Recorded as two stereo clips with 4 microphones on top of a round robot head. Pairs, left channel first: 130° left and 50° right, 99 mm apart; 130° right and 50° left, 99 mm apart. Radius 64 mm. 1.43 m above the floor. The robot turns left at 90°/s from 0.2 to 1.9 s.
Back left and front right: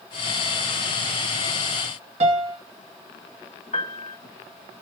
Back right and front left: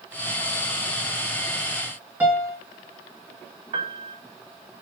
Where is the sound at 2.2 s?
25° right, 1.9 m.